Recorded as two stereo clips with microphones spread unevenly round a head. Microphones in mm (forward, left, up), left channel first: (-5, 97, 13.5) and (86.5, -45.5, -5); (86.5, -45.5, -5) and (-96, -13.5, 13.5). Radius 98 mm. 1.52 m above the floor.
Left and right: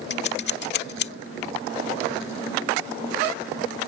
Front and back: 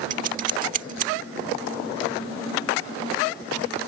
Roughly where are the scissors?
Behind left.